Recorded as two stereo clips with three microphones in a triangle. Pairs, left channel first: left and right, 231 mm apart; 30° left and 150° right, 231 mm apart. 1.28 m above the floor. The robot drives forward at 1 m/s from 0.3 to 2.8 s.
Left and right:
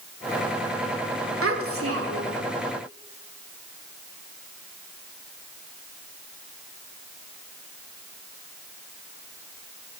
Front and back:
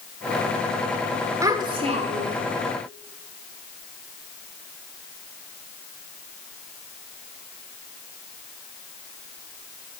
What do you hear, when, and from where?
1.4 s a child speaking: 75° right, 2 m; by 2.4 s 100° right, 2 m